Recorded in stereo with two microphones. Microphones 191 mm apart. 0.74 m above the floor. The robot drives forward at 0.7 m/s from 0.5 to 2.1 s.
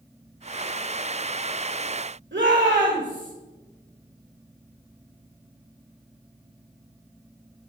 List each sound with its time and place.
2.3 s a shout: 80° right, 2 m